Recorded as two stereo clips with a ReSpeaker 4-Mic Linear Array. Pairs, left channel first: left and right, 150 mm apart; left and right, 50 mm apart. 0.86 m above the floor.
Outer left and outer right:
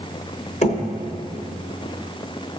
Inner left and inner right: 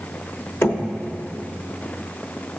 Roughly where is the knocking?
Left.